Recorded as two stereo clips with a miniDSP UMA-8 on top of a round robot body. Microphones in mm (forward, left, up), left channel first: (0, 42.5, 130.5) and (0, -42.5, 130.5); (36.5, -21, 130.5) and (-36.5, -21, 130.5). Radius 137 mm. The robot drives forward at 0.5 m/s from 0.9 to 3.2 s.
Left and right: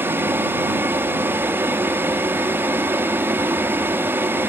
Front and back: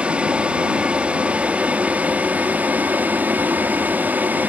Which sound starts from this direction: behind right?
An aircraft, at 0.0 s.